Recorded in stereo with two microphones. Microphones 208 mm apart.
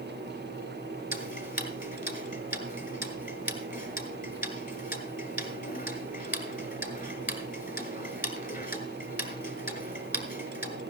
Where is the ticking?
40° left (ahead or behind), 2 m.